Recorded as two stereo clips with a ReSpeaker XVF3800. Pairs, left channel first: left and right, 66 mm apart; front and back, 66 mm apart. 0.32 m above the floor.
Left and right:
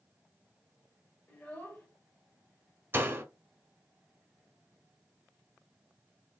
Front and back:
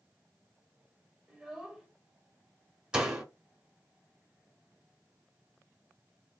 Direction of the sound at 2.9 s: 110° right.